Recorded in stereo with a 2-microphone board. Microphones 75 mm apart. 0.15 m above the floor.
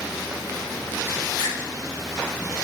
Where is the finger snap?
55° left (ahead or behind), 8.5 m.